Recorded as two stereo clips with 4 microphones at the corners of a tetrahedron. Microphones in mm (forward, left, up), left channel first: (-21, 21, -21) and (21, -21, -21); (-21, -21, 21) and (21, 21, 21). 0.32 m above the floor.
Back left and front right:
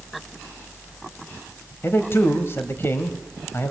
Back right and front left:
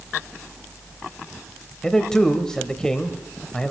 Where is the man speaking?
150° left, 1.3 m.